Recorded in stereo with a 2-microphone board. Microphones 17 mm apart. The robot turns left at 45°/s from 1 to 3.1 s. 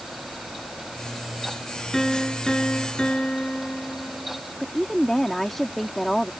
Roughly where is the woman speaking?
Centre.